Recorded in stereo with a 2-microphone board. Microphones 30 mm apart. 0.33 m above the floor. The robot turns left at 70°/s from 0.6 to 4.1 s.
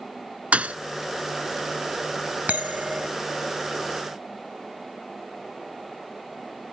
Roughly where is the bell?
Right.